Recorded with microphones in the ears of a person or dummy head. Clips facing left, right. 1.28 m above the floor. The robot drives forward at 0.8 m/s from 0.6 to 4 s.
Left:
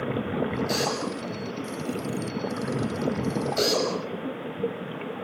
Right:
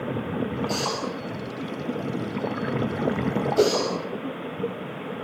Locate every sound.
0.7 s a drill: 25° left (ahead or behind), 9.5 m; by 3.9 s 30° left (ahead or behind), 7.5 m
3.6 s a whoosh: 55° right (ahead or behind), 4 m